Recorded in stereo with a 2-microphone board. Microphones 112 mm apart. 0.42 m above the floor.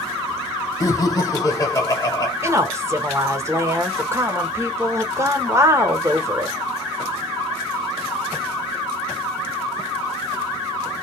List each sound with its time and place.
0.8 s laughter: 30° left (ahead or behind), 1.3 m
2.4 s a woman speaking: 25° right (ahead or behind), 0.9 m